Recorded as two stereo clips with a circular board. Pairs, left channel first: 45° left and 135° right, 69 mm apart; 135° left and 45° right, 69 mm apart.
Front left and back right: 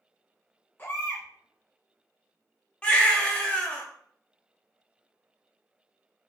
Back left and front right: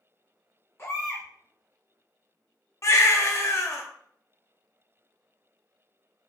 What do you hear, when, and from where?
0.8 s a baby crying: 95° left, 1.2 m
2.8 s a baby crying: 115° left, 0.6 m